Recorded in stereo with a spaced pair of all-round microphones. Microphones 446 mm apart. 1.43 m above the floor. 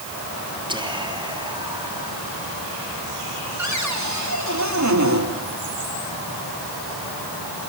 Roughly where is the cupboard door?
Right.